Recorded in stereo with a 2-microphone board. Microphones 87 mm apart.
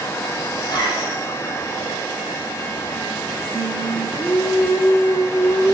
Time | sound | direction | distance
0.6 | a zipper | 55° left (ahead or behind) | 7 m
3.5 | singing | 20° left (ahead or behind) | 6.5 m